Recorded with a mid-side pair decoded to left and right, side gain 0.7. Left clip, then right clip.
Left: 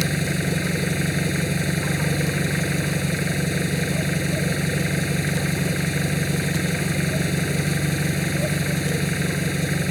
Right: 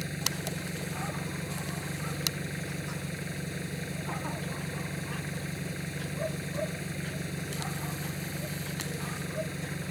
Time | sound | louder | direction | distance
0.0 | an engine running | left 9 dB | 50° left | ?